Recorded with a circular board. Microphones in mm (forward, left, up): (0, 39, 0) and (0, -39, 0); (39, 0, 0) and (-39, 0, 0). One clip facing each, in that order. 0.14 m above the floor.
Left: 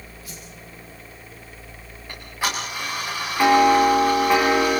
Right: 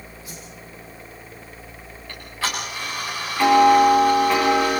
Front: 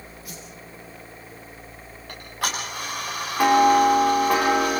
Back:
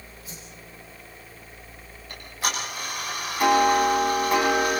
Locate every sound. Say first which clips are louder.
0.2 s a whoosh: right 2 dB, front 3 dB; 25° right, 6 m
2.1 s ticking: left 1 dB, front 1 dB; 20° left, 8 m